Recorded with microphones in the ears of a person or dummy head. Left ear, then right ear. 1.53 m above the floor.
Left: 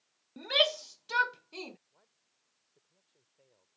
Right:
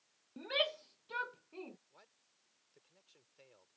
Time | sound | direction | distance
0.4 | a shout | 25° left (ahead or behind) | ?
1.9 | a man speaking | 50° right (ahead or behind) | ?